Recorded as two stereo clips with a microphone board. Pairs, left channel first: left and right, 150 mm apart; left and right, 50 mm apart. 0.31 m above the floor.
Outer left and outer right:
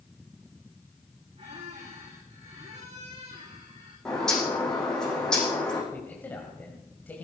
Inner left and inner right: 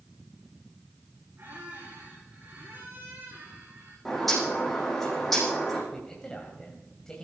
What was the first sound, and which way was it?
A squeak, 45° right (ahead or behind).